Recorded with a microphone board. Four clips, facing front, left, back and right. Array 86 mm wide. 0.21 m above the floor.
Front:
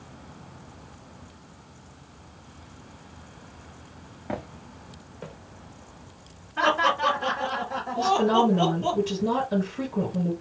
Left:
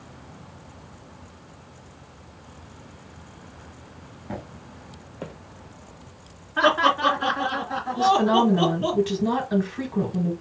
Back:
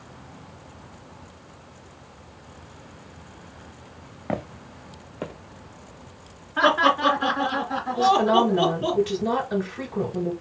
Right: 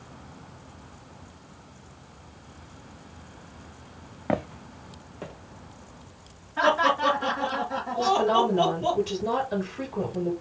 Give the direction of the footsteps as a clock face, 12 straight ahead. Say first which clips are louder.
Right 8 dB, back 4 dB; 4 o'clock.